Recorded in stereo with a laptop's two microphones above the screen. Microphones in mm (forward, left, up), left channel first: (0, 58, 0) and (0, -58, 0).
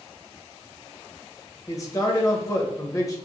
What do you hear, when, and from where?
1.7 s a man speaking: 30° left (ahead or behind), 0.7 m